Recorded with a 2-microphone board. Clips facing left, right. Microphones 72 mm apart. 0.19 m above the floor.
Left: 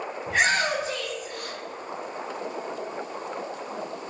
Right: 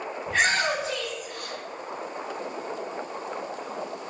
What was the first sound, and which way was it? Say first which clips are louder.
A shout: left 1 dB; 5° left (ahead or behind).